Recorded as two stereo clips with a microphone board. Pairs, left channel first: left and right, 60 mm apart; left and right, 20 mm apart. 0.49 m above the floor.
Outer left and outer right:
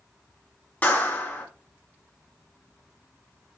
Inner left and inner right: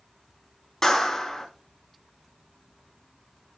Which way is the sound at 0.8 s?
30° left (ahead or behind).